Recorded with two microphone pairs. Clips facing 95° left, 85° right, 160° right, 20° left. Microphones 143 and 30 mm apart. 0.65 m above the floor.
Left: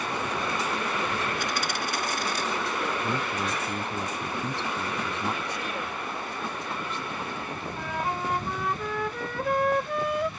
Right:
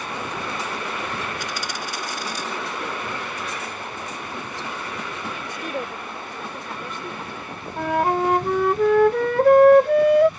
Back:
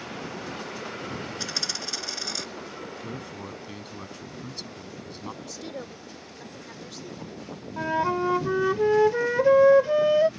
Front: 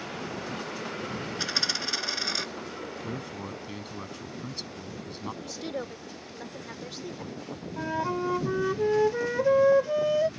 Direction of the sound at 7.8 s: 95° right.